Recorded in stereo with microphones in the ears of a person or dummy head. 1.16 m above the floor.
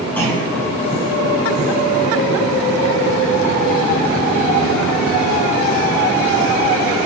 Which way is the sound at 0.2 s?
10° left (ahead or behind).